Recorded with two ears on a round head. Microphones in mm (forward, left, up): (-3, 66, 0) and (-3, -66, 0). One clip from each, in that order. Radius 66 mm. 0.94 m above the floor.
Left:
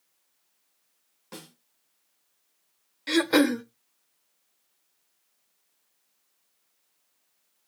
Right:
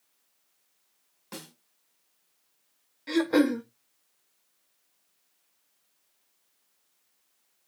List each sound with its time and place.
1.3 s a snare drum: 15° right (ahead or behind), 1.3 m
3.1 s throat clearing: 60° left (ahead or behind), 0.5 m